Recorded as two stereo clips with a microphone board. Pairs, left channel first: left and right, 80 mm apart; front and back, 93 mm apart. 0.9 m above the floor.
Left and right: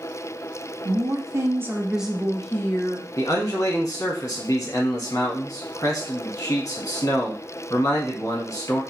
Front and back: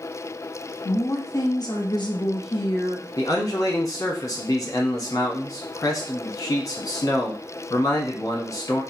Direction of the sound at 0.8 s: 60° right.